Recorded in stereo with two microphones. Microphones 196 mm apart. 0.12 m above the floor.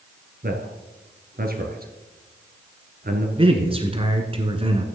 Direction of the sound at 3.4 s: 30° right (ahead or behind).